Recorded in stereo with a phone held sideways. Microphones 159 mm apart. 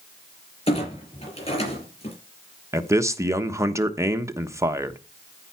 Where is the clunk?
40° left (ahead or behind), 7 m.